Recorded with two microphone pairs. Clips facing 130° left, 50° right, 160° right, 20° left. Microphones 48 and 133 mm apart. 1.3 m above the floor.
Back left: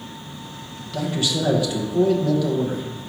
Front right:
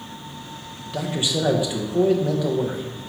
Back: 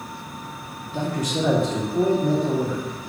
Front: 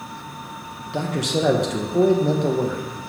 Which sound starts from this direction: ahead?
A man speaking, at 0.9 s.